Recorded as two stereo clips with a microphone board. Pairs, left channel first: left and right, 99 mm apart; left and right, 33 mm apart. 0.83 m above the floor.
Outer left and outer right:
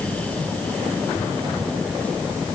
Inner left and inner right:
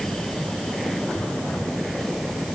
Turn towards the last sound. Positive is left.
No sound to turn to.